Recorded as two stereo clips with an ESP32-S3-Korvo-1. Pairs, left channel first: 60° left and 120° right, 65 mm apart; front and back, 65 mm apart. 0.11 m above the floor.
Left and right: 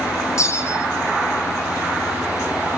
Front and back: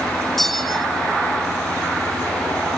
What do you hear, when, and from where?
0.4 s a bell: 85° left, 0.9 m